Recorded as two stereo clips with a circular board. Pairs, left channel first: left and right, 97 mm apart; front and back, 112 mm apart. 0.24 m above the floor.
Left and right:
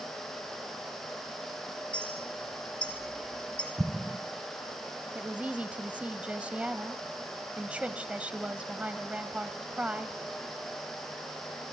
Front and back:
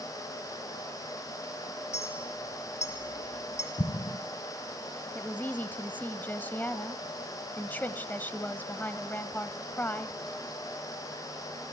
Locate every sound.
1.9 s a clink: 10° left, 4 m
3.8 s an explosion: 10° right, 1.6 m
5.2 s a woman speaking: 40° right, 0.9 m